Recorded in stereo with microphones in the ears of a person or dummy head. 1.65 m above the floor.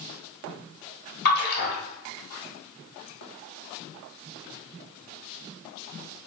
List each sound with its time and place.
1.2 s a splash: 55° left (ahead or behind), 1.6 m